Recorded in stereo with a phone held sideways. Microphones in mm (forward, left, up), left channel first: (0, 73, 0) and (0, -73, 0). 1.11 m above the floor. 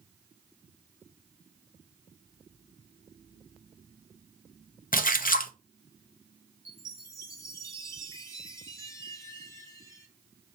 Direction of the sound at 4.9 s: 75° left (ahead or behind).